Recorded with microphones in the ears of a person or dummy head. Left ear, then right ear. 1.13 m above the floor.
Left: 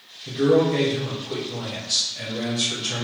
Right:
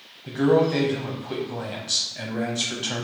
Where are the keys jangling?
No keys jangling in this recording.